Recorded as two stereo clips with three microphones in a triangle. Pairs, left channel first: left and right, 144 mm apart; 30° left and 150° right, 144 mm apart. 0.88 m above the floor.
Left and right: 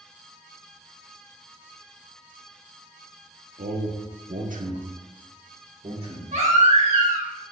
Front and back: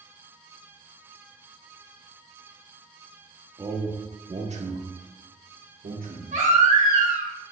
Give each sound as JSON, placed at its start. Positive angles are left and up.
{"t": 3.6, "sound": "a man speaking", "azimuth_deg": -85, "distance_m": 1.2}
{"t": 6.3, "sound": "a baby crying", "azimuth_deg": -125, "distance_m": 2.0}